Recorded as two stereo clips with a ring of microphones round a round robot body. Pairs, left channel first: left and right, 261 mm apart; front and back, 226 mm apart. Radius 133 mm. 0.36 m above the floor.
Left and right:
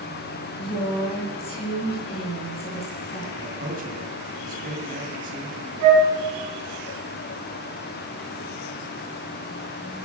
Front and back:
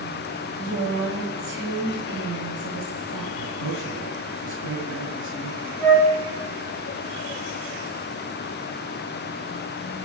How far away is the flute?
About 3.5 m.